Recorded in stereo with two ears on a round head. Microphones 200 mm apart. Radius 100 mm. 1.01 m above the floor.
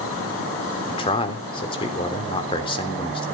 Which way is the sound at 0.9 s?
25° left (ahead or behind).